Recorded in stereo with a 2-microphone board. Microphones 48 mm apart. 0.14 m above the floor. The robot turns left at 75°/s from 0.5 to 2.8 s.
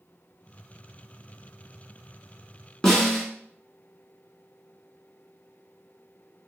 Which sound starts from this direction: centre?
A snare drum, at 2.8 s.